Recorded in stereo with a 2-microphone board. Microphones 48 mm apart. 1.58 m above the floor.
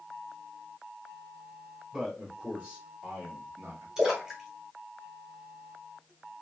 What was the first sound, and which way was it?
A man speaking, 15° right (ahead or behind).